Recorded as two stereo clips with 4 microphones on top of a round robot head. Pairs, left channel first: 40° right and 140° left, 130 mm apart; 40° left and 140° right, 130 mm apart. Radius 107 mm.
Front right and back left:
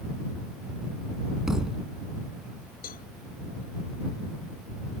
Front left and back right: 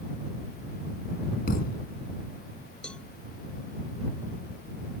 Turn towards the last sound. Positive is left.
turn(degrees=-45)